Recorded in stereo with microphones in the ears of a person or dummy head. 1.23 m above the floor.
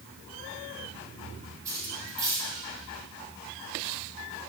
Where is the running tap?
I don't hear a running tap.